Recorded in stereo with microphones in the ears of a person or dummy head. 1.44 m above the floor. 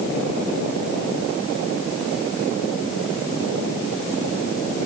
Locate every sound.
Only background noise.